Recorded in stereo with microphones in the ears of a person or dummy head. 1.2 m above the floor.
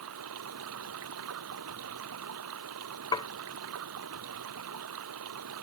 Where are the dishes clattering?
25° left (ahead or behind).